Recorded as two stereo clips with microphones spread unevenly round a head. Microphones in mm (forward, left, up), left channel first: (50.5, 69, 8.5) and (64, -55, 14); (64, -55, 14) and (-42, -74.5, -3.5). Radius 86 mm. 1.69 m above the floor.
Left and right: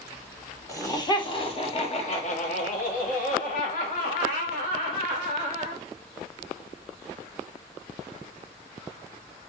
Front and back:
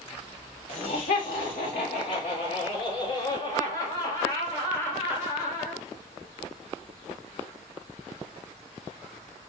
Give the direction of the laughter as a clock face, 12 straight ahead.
11 o'clock.